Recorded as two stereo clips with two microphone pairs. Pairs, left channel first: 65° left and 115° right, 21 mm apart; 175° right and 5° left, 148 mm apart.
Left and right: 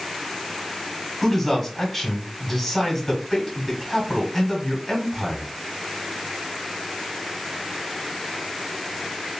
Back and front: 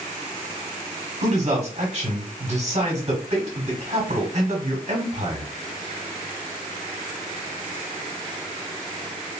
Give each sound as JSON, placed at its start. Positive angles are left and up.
{"t": 1.2, "sound": "a man speaking", "azimuth_deg": -10, "distance_m": 1.1}